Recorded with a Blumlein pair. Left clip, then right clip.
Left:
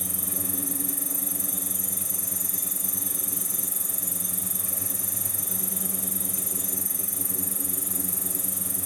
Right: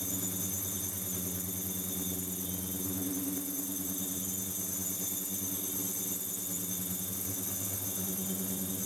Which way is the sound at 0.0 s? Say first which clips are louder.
Left 4 dB; 55° left.